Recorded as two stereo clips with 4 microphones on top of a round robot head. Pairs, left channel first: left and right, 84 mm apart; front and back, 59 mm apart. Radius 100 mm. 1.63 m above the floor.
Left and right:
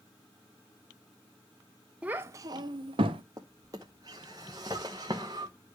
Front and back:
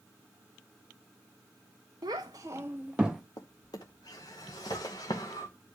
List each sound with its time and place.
2.0 s a child speaking: 165° right, 0.7 m; by 3.2 s 95° right, 1.1 m
3.4 s a drawer: 35° right, 0.9 m